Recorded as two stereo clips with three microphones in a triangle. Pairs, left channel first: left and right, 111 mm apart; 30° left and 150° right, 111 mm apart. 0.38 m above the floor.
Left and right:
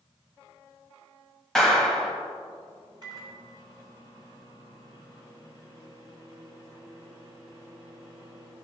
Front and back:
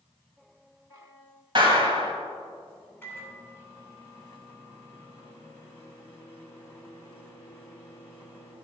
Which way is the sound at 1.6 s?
175° left.